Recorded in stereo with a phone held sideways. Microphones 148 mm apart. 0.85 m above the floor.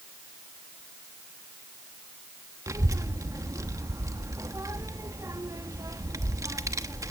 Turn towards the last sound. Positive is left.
turn(degrees=-25)  # may be behind; listen again after turning